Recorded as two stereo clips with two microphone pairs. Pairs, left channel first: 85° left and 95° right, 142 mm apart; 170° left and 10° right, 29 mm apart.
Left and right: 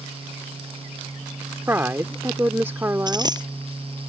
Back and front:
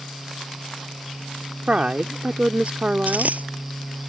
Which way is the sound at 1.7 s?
30° right.